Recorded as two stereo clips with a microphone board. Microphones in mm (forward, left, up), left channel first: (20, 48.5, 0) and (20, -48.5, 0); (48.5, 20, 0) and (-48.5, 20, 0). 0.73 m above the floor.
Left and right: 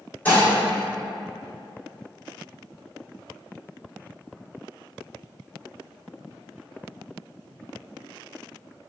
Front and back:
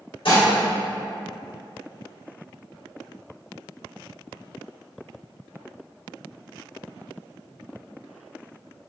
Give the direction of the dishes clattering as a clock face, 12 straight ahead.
11 o'clock.